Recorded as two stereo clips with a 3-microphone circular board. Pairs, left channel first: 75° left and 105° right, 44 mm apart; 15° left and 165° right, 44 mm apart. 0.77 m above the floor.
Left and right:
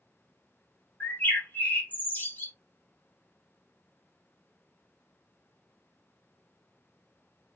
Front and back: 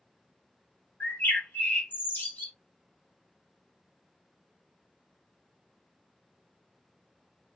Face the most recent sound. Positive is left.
turn(degrees=40)